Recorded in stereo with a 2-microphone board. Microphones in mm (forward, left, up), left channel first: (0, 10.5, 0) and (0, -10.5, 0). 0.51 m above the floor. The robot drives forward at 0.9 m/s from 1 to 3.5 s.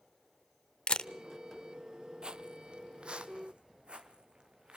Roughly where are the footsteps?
Right.